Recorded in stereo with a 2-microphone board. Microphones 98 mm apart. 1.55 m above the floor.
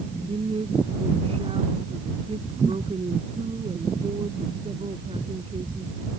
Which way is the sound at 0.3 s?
85° right.